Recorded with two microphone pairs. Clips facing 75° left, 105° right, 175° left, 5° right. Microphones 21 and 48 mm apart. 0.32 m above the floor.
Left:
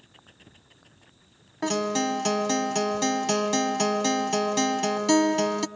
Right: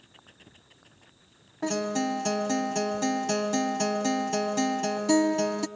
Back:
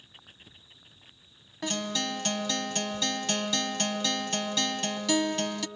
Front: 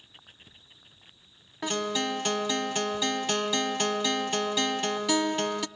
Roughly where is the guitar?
Left.